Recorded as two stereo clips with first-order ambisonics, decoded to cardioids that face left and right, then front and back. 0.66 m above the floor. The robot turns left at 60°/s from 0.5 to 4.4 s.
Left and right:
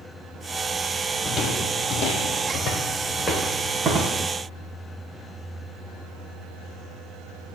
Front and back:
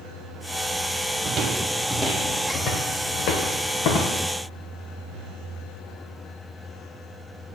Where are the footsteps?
145° left, 1.0 m; by 4.2 s 40° right, 2.5 m.